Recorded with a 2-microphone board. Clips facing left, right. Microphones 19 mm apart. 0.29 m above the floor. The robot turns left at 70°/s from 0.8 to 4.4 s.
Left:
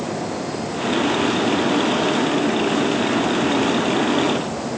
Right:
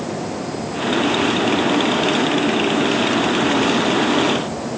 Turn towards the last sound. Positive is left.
No sound to turn to.